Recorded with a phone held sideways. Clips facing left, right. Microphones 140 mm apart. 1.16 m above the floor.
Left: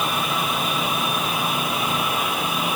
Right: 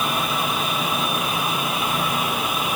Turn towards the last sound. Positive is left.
No sound to turn to.